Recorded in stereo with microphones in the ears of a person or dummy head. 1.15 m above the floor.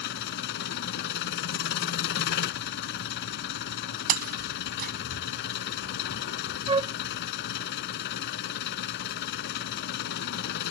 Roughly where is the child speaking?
No child speaking in this recording.